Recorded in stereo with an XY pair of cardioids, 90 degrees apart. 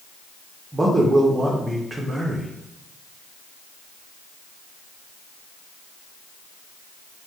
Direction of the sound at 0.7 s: 25° right.